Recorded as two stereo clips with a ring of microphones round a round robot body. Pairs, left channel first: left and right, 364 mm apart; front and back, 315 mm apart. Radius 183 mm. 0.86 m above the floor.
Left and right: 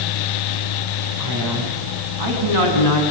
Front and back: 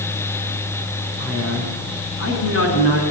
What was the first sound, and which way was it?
A man speaking, 60° right.